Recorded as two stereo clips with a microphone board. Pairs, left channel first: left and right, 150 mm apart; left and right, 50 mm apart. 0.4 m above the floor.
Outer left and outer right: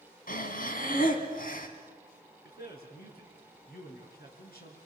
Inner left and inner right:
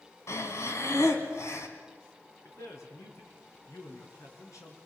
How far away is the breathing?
About 2 m.